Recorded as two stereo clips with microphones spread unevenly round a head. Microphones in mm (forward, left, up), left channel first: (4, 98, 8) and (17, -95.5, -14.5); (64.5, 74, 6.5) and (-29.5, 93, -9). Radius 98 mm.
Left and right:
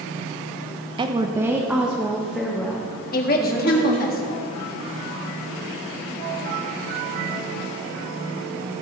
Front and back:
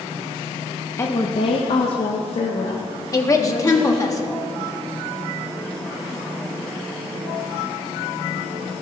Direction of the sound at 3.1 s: 45° left.